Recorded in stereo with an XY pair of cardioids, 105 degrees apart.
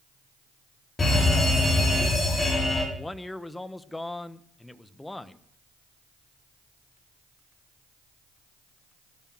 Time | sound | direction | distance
1.0 | a fire alarm | 30° left | 7 m
3.0 | a man speaking | 15° left | 1.3 m